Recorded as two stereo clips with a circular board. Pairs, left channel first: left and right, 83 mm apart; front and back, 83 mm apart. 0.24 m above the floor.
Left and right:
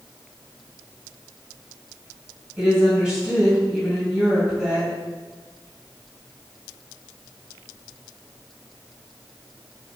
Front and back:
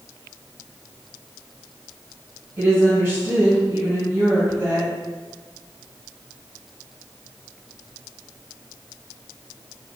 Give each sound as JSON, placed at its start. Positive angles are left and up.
{"t": 2.6, "sound": "a woman speaking", "azimuth_deg": -165, "distance_m": 1.8}